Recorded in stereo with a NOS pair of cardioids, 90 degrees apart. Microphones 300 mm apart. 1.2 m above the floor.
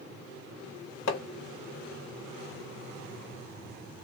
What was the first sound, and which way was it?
Hammering, 45° left.